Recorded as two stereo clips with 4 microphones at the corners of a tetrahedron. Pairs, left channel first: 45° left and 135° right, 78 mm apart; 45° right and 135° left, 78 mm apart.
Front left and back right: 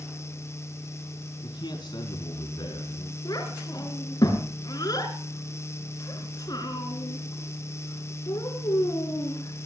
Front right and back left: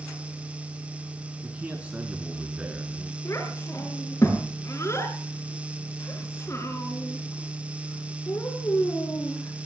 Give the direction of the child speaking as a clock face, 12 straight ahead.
12 o'clock.